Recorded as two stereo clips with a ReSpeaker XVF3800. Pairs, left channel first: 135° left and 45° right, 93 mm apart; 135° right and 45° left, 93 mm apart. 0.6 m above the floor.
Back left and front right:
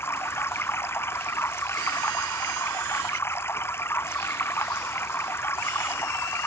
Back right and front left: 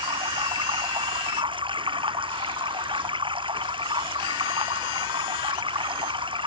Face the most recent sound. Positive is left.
turn(degrees=70)